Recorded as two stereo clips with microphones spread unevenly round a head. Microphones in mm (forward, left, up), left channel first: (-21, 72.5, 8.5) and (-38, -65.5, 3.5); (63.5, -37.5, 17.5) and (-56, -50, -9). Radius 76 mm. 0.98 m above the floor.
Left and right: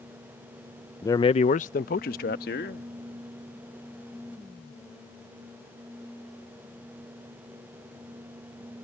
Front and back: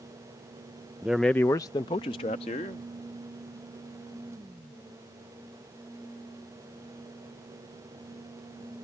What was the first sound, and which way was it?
A man speaking, 140° left.